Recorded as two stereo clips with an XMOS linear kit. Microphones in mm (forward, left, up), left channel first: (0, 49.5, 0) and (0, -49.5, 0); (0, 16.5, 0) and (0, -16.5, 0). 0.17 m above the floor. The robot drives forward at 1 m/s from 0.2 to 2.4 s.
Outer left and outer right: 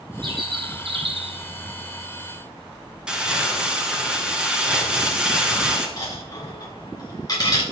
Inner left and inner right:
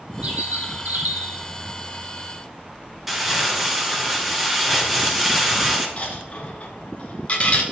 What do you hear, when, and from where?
0.2 s a bird: 50° right (ahead or behind), 2.5 m; by 1.4 s 75° right (ahead or behind), 2 m
3.1 s crumpling: 10° right (ahead or behind), 2.5 m
6.0 s a dropped coin: 35° left (ahead or behind), 3 m